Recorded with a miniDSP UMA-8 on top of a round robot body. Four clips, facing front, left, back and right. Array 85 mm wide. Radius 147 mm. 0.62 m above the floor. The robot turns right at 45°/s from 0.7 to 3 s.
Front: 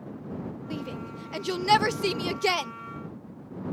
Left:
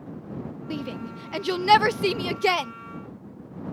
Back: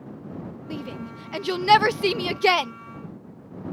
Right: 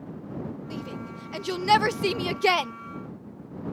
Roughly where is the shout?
Left.